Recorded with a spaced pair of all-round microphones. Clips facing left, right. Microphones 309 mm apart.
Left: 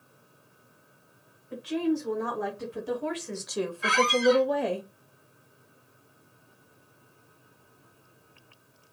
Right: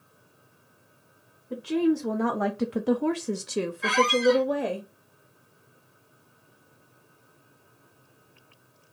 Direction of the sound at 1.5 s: 55° right (ahead or behind).